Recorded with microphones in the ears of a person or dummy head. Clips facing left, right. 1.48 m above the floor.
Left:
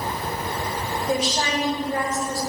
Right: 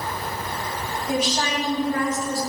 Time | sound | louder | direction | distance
1.1 | a woman speaking | even | 20° left (ahead or behind) | 1.9 m